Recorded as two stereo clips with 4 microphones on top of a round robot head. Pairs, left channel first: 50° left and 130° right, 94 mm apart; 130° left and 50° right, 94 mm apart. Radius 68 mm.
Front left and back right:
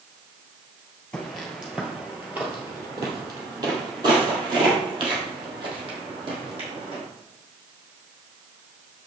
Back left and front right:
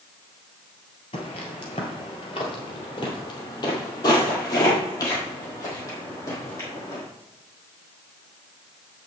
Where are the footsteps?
130° left, 1.6 m; by 7.0 s 165° right, 3.5 m.